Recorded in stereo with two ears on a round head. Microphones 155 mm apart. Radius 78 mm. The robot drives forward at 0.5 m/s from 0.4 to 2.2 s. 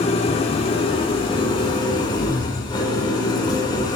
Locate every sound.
0.0 s an engine running: 35° left (ahead or behind), 2.5 m; by 4.0 s 25° left (ahead or behind), 3 m